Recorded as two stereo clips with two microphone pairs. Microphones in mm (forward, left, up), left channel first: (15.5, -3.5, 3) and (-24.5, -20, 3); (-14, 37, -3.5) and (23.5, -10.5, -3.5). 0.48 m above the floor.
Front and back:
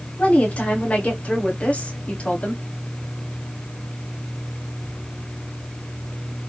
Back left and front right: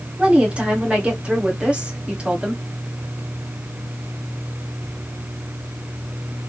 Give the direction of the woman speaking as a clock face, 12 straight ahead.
12 o'clock.